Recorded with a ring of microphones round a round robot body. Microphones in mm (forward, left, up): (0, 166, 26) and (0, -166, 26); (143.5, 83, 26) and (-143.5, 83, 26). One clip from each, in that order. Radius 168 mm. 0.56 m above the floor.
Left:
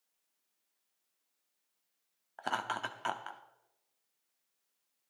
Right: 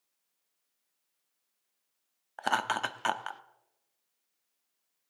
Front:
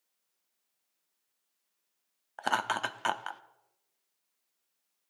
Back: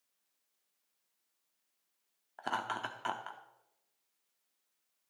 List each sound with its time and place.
2.4 s laughter: 35° right, 0.7 m